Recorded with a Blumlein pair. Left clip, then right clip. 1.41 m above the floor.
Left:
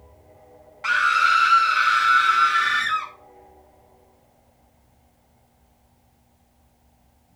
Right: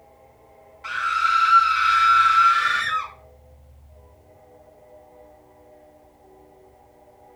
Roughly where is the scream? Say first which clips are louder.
Left 4 dB; ahead left.